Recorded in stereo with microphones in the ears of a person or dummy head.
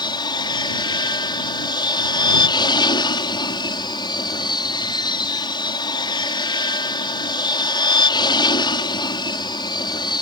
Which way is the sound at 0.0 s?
20° left (ahead or behind).